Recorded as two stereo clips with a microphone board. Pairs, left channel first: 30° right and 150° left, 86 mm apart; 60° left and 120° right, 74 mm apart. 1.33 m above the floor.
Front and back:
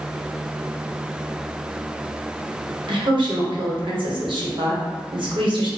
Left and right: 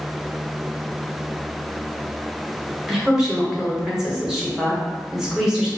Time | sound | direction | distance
2.9 | a woman speaking | 155° left | 1.0 m